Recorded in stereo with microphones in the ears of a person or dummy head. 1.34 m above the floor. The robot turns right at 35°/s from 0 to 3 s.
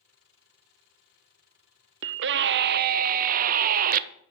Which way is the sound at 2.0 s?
90° right.